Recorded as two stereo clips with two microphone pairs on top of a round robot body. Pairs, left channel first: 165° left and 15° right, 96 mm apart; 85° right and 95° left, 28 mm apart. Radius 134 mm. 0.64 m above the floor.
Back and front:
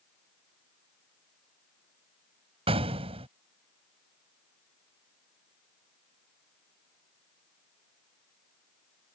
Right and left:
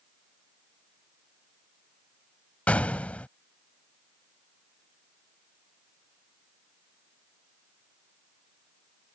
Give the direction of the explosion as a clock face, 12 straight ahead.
1 o'clock.